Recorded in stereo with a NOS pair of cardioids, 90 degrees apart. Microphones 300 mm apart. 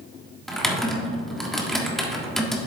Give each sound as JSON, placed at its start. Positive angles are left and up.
{"t": 0.5, "sound": "typing on a keyboard", "azimuth_deg": 0, "distance_m": 1.4}